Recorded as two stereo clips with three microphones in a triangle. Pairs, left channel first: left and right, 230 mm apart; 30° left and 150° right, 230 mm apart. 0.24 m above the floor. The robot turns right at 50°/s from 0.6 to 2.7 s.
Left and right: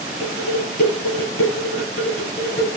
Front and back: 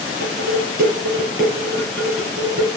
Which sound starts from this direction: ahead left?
Dishes clattering, at 0.2 s.